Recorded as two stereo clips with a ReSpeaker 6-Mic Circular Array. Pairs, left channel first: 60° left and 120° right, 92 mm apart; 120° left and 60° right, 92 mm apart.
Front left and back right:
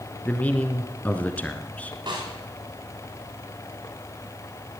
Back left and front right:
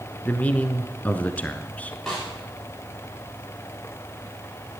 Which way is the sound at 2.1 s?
155° right.